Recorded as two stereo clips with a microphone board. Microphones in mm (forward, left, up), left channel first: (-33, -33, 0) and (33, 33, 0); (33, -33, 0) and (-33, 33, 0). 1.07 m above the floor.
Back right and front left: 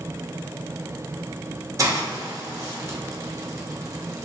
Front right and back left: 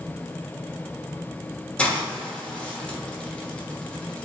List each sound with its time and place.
1.8 s a hiss: 25° left, 0.8 m